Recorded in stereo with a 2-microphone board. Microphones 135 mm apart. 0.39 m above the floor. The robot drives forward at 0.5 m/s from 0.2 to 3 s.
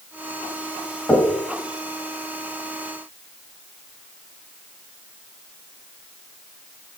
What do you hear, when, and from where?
1.1 s knocking: 5° left (ahead or behind), 2.0 m